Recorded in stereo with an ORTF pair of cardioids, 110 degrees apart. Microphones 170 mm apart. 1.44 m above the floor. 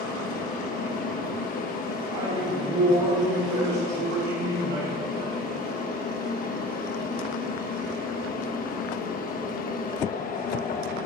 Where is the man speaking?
65° right, 3.5 m.